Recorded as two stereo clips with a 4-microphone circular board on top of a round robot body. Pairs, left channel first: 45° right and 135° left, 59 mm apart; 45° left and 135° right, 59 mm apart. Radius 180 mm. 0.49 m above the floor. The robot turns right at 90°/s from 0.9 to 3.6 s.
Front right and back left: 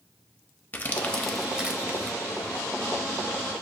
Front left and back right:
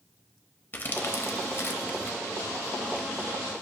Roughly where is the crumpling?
Ahead.